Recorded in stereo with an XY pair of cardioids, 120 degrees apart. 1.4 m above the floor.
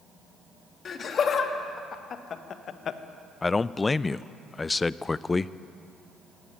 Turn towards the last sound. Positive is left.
turn(degrees=20)